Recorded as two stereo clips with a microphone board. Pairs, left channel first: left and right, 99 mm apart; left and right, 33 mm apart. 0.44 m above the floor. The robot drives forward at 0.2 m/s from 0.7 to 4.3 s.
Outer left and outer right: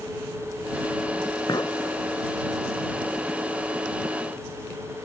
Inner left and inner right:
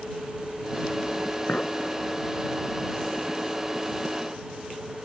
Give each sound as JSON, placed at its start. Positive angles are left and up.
{"t": 1.5, "sound": "a clink", "side_deg": 45}